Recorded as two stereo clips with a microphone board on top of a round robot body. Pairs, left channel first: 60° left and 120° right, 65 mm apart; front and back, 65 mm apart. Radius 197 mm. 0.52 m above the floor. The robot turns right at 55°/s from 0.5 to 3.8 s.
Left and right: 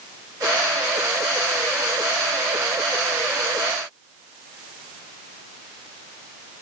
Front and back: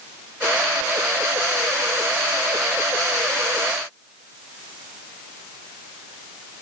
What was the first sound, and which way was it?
Only background noise.